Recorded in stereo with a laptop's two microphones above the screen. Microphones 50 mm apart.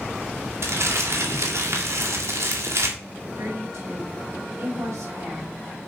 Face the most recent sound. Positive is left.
turn(degrees=-75)  # may be behind; listen again after turning